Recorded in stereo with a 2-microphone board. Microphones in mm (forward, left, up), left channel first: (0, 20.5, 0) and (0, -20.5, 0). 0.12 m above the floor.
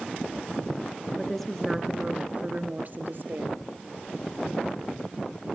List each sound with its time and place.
1.2 s a woman speaking: 15° left (ahead or behind), 2 m; by 3.6 s 60° right (ahead or behind), 3.5 m